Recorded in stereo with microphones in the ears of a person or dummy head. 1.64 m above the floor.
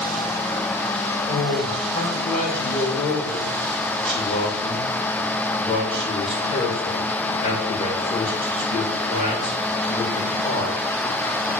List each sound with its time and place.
1.3 s a man speaking: 35° left (ahead or behind), 2 m